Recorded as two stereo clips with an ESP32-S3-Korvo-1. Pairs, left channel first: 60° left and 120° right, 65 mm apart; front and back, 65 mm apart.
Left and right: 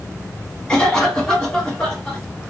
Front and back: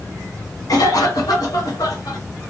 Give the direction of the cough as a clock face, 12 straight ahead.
12 o'clock.